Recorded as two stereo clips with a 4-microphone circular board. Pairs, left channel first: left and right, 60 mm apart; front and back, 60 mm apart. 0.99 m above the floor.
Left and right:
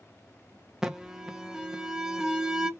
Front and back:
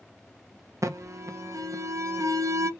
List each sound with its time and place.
0.8 s an alarm: 165° right, 0.6 m